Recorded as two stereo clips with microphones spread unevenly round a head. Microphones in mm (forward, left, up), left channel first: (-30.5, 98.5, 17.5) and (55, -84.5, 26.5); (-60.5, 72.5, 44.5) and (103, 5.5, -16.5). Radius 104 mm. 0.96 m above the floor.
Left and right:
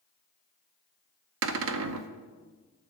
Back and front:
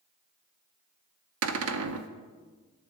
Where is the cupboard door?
55° right, 0.6 m.